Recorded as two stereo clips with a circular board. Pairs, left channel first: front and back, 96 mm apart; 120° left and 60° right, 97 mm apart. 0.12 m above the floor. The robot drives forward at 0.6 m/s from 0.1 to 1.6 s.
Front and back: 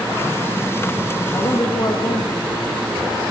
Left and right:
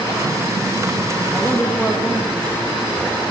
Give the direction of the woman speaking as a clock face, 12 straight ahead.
11 o'clock.